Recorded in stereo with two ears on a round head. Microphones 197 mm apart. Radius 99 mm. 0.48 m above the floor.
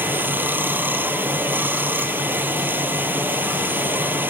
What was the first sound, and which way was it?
Running water, 10° right (ahead or behind).